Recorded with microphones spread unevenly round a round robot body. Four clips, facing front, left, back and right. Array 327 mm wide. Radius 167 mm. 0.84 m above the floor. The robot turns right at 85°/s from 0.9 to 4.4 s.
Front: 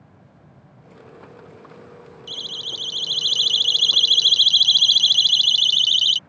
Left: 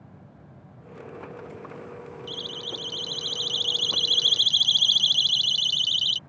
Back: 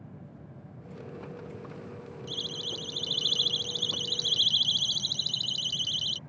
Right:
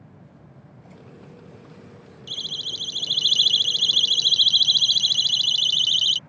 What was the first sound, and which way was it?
A siren, 150° right.